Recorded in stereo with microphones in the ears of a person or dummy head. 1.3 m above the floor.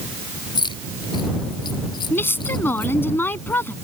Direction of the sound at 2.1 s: 15° left (ahead or behind).